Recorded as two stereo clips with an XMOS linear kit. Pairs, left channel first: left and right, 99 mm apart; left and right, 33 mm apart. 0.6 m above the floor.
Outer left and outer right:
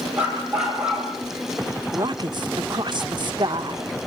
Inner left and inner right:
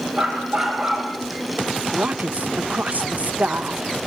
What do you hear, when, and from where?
0.2 s a dog barking: 10° right (ahead or behind), 8 m
1.9 s a woman speaking: 50° right (ahead or behind), 1.2 m